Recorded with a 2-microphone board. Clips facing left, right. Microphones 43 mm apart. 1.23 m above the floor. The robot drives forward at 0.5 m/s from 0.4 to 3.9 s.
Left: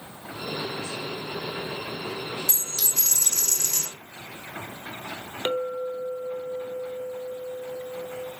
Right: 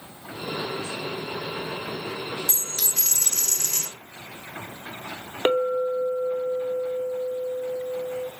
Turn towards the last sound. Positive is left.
turn(degrees=-25)  # may be behind; listen again after turning